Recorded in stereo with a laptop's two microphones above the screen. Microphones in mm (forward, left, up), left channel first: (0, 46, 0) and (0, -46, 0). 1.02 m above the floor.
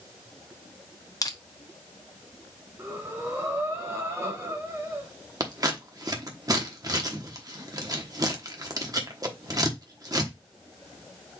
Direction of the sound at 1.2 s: 40° left (ahead or behind).